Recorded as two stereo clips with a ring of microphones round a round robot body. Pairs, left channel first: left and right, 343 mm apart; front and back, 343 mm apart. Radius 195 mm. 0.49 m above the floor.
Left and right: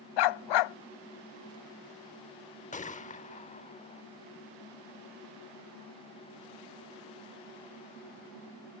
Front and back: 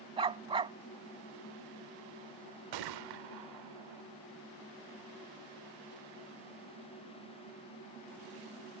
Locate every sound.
0.2 s a dog barking: 105° left
2.7 s a gunshot: 160° left